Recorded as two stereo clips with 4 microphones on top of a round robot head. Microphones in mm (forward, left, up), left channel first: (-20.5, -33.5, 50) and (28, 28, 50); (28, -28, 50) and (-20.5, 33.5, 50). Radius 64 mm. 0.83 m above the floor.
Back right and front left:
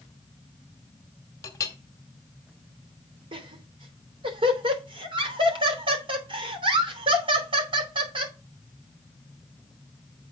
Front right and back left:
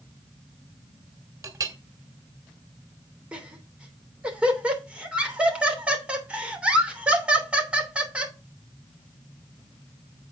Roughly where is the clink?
Behind.